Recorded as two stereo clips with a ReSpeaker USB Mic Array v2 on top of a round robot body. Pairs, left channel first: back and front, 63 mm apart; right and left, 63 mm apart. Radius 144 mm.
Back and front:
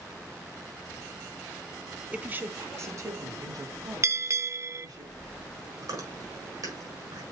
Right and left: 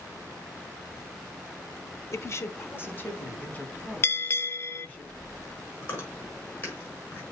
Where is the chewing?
30° right, 5.5 m.